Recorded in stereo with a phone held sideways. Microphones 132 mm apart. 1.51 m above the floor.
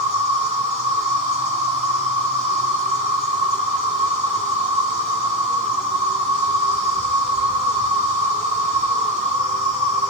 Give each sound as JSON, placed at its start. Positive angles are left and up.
{"t": 0.0, "sound": "an insect", "side_deg": -60, "distance_m": 2.0}